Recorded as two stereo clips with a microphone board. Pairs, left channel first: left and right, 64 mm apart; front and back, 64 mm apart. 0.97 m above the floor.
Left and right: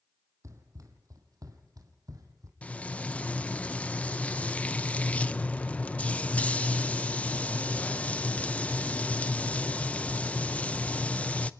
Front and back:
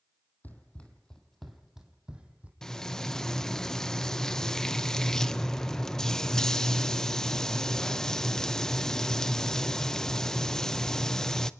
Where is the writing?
No writing in this recording.